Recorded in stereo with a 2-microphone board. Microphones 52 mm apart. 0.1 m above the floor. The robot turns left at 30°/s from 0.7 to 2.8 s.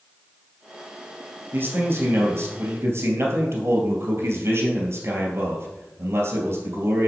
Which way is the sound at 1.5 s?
55° right.